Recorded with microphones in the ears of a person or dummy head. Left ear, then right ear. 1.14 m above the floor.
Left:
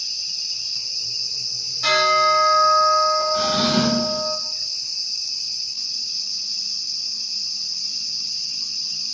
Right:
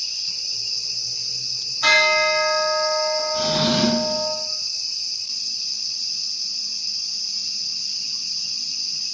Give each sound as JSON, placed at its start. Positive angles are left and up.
{"t": 1.8, "sound": "a bell", "side_deg": -40, "distance_m": 1.6}
{"t": 3.3, "sound": "a drawer", "side_deg": 45, "distance_m": 1.5}